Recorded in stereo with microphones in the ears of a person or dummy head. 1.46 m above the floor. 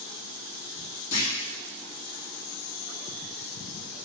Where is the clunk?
35° left (ahead or behind), 3.5 m.